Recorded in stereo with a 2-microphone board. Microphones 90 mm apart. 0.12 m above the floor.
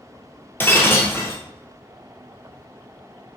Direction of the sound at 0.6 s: 25° left (ahead or behind).